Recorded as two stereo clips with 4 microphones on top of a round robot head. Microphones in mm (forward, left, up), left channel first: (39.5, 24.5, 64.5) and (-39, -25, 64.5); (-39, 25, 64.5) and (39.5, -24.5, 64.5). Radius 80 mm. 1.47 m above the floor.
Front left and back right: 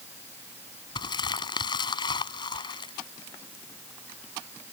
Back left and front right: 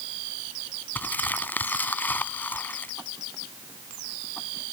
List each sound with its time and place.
0.9 s crumpling: 75° left